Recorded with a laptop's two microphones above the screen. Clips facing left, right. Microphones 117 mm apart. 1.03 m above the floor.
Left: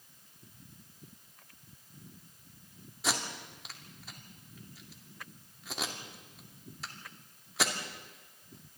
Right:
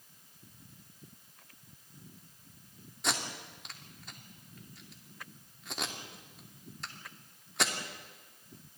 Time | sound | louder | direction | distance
3.0 | tape being pulled | left 1 dB | centre (ahead or behind) | 2.5 m